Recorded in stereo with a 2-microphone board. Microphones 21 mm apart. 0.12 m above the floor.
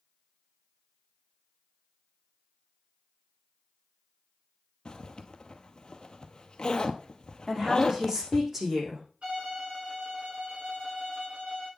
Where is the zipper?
40° left (ahead or behind), 0.9 m.